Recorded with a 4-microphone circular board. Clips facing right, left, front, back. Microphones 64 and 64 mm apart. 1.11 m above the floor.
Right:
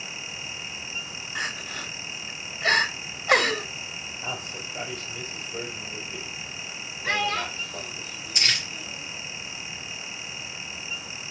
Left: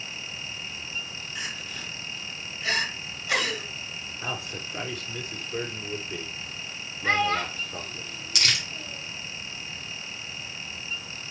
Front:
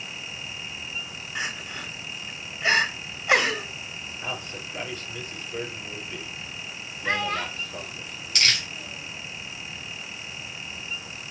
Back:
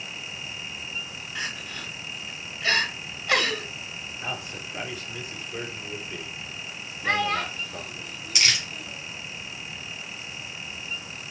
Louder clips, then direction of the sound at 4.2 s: Left 1 dB, even; 100° left.